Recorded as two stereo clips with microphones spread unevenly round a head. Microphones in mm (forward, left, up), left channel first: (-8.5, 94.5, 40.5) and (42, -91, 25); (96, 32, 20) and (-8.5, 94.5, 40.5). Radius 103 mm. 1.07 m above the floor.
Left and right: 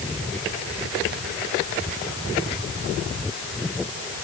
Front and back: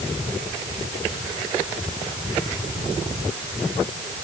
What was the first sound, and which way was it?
Only background noise.